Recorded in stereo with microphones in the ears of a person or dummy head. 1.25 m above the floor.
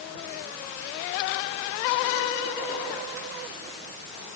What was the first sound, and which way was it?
Only background noise.